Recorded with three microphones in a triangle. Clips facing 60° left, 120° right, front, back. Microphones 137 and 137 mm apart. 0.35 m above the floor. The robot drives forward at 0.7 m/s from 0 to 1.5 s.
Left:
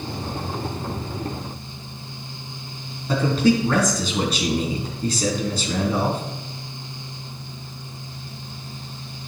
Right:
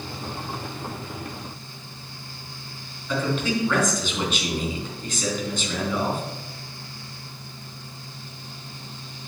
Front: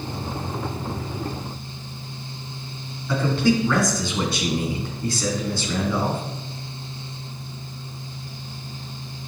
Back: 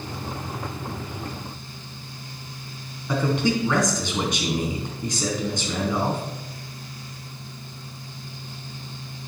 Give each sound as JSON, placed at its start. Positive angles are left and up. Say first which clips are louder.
{"t": 3.1, "sound": "a man speaking", "louder": "left 6 dB, front 2 dB", "azimuth_deg": 110, "distance_m": 3.0}